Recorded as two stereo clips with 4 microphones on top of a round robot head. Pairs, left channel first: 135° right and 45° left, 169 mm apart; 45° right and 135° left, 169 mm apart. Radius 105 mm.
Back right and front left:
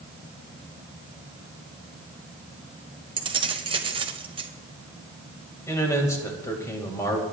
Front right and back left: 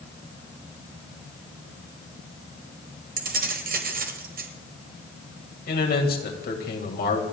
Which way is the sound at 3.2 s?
105° left.